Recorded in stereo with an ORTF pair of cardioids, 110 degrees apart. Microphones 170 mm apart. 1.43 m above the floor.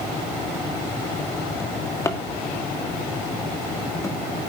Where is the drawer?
15° left, 1.9 m.